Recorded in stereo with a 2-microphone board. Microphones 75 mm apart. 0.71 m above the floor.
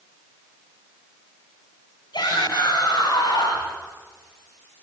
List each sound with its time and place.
2.1 s a shout: 70° left (ahead or behind), 5.5 m; by 3.7 s 75° left (ahead or behind), 5.5 m